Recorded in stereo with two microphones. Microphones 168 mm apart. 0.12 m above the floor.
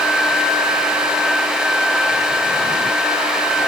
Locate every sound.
Only background noise.